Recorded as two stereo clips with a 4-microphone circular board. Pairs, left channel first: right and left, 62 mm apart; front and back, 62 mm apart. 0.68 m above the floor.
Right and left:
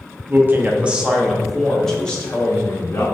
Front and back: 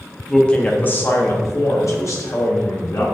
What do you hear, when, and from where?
0.3 s a man speaking: 75° left, 0.7 m; by 3.0 s 25° right, 1.5 m